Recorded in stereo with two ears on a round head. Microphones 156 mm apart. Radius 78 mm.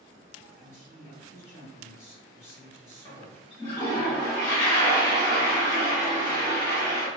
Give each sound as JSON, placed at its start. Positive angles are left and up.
{"t": 0.6, "sound": "a woman speaking", "side_deg": 15, "distance_m": 1.7}
{"t": 3.0, "sound": "a toilet flushing", "side_deg": 20, "distance_m": 1.1}